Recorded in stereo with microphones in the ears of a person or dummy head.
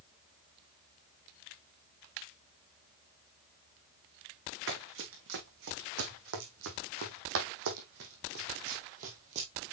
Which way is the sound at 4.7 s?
65° right (ahead or behind).